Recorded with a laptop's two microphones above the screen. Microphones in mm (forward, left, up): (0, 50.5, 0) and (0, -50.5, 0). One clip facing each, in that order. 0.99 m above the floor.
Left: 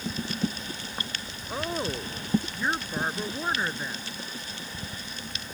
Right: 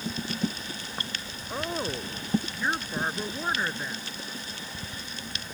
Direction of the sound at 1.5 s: 5° left (ahead or behind).